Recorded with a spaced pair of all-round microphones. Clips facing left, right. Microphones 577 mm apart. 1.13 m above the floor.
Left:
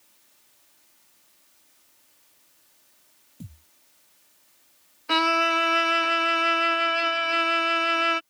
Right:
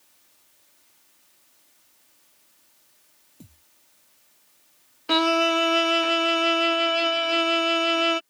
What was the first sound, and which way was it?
A thud, 40° left (ahead or behind).